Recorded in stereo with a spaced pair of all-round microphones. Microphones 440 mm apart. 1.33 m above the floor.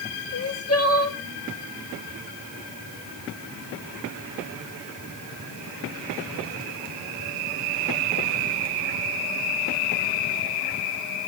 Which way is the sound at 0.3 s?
35° left (ahead or behind).